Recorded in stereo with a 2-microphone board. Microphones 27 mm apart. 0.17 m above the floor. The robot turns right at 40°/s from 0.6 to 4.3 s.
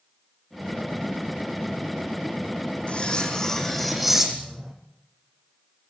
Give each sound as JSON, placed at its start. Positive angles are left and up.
{"t": 2.9, "sound": "cutlery clinking", "azimuth_deg": 135, "distance_m": 4.0}